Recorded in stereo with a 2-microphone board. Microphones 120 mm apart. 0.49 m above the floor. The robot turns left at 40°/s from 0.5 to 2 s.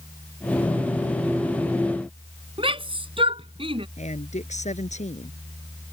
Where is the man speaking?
75° left (ahead or behind).